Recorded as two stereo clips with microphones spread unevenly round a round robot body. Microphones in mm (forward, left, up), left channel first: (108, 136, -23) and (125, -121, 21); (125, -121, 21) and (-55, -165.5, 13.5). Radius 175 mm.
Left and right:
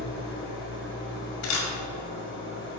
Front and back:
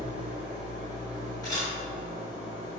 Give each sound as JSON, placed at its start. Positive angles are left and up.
{"t": 0.0, "sound": "an engine running", "azimuth_deg": 130, "distance_m": 1.6}
{"t": 1.4, "sound": "a camera shutter", "azimuth_deg": 95, "distance_m": 1.8}